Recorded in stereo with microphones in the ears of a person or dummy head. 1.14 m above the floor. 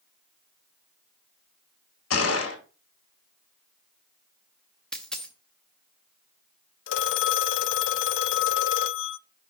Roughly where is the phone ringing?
Left.